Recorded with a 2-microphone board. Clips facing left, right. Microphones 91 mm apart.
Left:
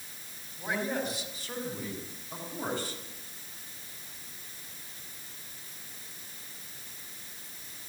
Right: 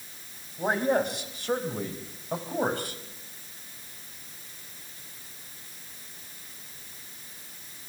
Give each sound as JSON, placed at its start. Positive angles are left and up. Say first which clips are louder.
{"t": 0.6, "sound": "a man speaking", "louder": "right 7 dB", "side_deg": -55, "distance_m": 4.0}